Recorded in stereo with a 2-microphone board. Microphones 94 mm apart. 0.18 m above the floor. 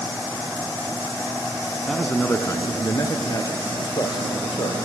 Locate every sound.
1.9 s a man speaking: 5° left (ahead or behind), 1.2 m; by 4.8 s 55° left (ahead or behind), 5 m